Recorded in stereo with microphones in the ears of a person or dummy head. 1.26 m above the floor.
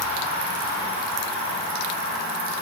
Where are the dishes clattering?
I don't hear dishes clattering.